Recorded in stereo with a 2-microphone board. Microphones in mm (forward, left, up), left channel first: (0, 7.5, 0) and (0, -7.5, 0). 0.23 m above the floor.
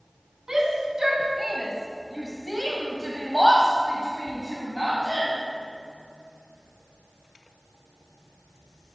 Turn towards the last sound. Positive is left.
turn(degrees=25)  # may be behind; listen again after turning